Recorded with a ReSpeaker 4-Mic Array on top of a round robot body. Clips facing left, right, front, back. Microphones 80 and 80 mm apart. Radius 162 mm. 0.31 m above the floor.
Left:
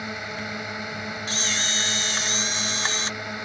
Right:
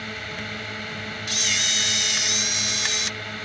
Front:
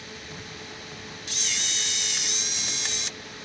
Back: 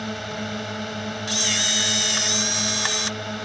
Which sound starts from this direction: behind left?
A camera shutter, at 1.3 s.